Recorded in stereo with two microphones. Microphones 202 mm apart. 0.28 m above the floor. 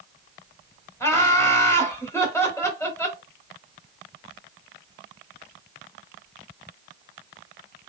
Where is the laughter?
15° left (ahead or behind), 1.4 m.